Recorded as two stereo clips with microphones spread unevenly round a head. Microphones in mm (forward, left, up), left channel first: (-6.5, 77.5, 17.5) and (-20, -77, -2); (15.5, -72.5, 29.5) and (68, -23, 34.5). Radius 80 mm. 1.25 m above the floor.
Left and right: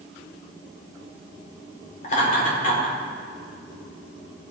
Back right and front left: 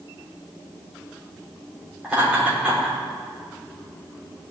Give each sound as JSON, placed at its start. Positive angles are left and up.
{"t": 2.0, "sound": "laughter", "azimuth_deg": 125, "distance_m": 4.5}